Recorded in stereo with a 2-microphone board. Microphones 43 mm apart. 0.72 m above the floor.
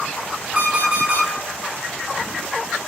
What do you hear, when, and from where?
0.6 s an alarm clock: 40° right (ahead or behind), 1.2 m